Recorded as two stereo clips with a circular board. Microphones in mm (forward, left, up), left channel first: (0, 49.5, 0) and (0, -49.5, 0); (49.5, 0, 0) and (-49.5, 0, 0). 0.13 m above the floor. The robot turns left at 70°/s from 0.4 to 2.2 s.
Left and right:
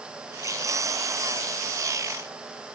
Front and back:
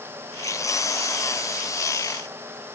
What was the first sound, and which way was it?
Only background noise.